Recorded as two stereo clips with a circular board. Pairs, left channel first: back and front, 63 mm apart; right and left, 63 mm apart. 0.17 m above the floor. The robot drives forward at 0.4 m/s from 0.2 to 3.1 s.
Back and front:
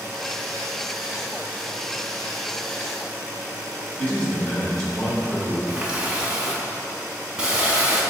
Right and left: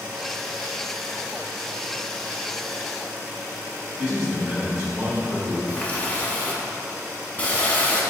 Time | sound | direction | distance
4.0 | a man speaking | 135° left | 1.2 m
5.7 | a running tap | 55° right | 0.7 m